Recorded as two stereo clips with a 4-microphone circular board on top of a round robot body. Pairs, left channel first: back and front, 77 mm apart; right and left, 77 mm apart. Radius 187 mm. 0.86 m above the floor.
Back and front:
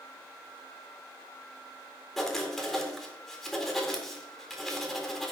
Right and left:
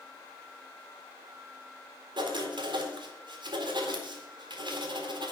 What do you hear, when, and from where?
2.2 s writing: 90° left, 2.5 m